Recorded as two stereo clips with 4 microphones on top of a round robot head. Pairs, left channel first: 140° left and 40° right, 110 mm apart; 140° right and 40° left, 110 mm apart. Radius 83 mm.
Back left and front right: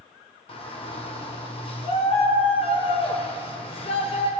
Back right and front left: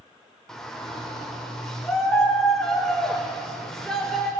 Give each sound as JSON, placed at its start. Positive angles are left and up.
{"t": 0.5, "sound": "a shout", "azimuth_deg": 135, "distance_m": 2.0}